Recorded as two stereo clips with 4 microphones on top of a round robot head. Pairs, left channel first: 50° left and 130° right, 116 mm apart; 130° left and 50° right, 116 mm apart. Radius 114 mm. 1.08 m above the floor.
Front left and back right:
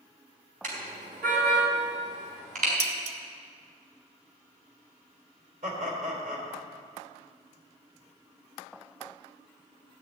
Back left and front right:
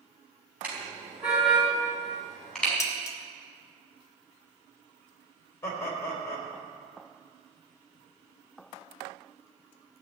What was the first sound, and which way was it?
A car horn, 130° right.